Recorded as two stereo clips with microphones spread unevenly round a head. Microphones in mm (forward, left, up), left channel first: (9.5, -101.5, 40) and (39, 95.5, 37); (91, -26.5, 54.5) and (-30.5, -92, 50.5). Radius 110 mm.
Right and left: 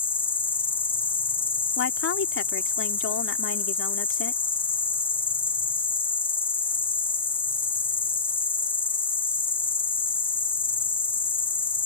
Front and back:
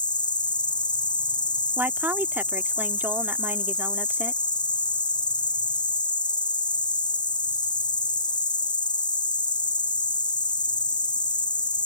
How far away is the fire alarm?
No fire alarm in this recording.